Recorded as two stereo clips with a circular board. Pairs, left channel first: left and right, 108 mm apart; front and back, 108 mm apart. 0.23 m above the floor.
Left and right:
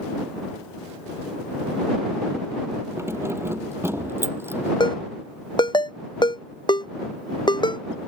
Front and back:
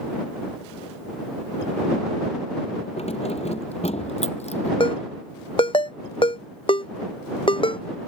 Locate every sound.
3.0 s keys jangling: 25° right; by 4.7 s 20° right
4.8 s a ringtone: 40° left